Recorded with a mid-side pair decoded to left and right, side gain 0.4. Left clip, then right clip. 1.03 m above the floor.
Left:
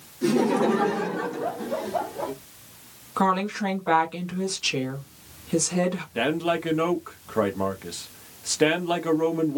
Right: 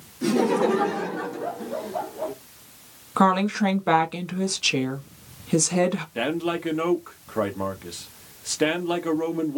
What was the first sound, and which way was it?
Laughter, 25° right.